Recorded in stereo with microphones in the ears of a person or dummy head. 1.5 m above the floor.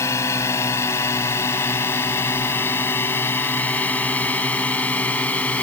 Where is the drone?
20° left (ahead or behind); by 5.6 s 10° left (ahead or behind).